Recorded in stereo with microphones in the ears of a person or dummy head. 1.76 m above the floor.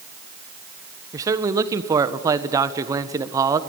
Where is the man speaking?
20° right (ahead or behind), 1.3 m.